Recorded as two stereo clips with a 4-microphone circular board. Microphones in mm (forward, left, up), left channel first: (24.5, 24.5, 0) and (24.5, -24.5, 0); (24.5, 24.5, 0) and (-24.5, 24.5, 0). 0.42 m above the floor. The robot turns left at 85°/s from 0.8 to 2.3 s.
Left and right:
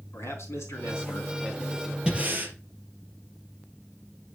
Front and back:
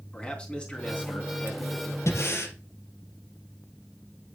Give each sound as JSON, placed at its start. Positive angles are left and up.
{"t": 0.1, "sound": "a man speaking", "azimuth_deg": 65, "distance_m": 3.5}
{"t": 2.1, "sound": "breathing", "azimuth_deg": -20, "distance_m": 3.0}